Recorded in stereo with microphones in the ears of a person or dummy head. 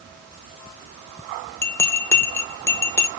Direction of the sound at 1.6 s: 10° left (ahead or behind).